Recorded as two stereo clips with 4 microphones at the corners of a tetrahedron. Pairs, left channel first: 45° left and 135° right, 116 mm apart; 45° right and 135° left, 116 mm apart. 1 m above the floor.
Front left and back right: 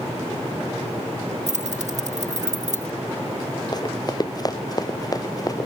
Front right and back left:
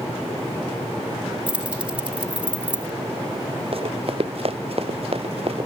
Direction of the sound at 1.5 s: 145° right.